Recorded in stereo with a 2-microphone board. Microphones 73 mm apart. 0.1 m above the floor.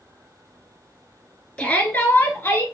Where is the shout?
20° left (ahead or behind), 1.4 m; by 2.6 s 30° left (ahead or behind), 1.5 m.